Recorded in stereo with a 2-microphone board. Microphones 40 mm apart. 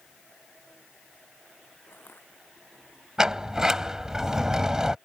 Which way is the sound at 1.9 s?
65° left (ahead or behind).